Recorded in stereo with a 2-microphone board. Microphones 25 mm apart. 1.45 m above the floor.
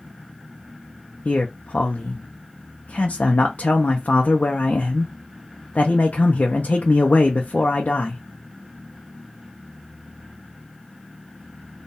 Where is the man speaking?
85° left, 0.6 m.